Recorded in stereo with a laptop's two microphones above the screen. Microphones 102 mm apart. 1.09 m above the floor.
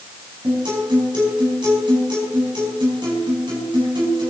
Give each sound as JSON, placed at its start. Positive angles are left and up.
{"t": 0.4, "sound": "a guitar", "side_deg": -50, "distance_m": 4.5}